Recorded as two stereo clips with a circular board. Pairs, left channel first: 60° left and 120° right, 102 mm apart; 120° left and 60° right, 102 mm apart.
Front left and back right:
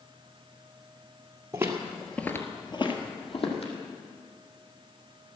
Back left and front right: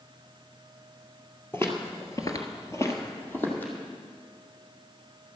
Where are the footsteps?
175° right, 1.6 m; by 3.7 s 50° left, 2.5 m.